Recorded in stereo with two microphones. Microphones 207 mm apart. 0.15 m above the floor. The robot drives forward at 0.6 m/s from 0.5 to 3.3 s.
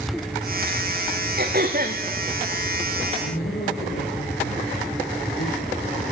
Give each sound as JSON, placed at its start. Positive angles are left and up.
{"t": 1.4, "sound": "throat clearing", "side_deg": -55, "distance_m": 3.0}
{"t": 3.2, "sound": "a man speaking", "side_deg": 75, "distance_m": 7.0}